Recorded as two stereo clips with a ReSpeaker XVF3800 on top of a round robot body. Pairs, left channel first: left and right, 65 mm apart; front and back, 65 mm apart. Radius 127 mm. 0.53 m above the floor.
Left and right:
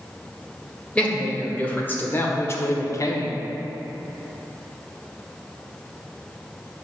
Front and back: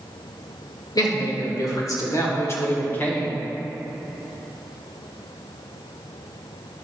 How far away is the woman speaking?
About 2.5 m.